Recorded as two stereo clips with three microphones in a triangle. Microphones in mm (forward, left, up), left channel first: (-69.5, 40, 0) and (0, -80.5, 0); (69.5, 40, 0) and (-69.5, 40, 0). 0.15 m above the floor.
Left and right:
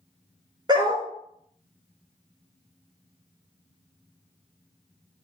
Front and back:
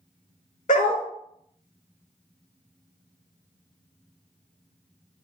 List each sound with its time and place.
0.7 s a dog barking: 5° right, 0.5 m